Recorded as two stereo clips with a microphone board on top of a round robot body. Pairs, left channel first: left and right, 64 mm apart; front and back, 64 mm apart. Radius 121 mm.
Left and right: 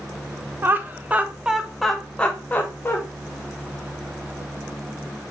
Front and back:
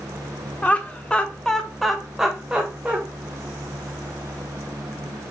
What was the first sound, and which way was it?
Laughter, 55° right.